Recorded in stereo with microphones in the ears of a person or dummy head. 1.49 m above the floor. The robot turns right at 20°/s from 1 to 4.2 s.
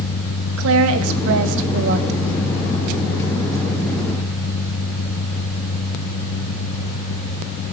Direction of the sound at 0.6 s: 75° right (ahead or behind).